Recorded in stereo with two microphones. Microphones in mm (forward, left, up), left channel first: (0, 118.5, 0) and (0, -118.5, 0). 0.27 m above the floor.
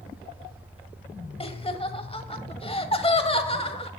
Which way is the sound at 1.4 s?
25° left (ahead or behind).